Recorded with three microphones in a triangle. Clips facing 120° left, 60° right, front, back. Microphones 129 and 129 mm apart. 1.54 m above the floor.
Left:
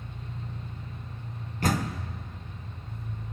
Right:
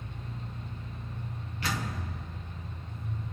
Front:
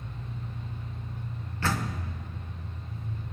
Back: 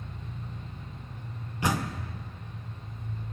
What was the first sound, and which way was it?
An engine running, 80° right.